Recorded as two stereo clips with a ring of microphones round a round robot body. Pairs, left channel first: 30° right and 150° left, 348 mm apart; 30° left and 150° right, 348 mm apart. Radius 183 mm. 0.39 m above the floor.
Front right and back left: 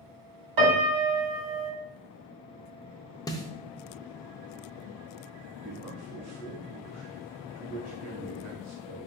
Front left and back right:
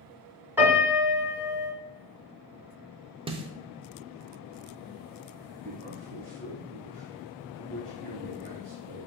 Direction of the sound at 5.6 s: 170° right.